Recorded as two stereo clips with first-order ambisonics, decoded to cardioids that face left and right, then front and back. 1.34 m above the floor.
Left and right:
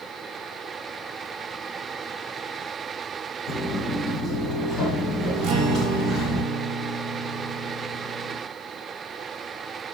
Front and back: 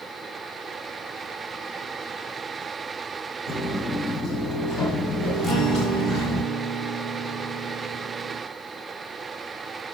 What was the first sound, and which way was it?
Footsteps, 15° right.